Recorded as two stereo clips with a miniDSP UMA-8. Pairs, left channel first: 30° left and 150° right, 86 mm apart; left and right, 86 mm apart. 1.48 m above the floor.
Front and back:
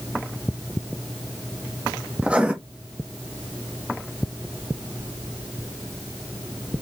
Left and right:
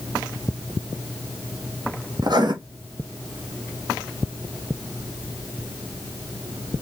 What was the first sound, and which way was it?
Writing, 75° right.